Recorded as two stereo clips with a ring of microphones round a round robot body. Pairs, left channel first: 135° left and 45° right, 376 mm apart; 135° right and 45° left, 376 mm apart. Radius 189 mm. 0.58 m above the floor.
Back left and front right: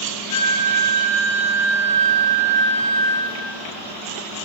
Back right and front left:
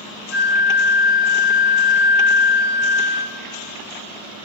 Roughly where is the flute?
Behind left.